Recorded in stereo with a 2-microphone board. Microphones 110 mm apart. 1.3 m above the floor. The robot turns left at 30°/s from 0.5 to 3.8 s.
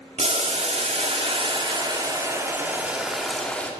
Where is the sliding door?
I don't hear a sliding door.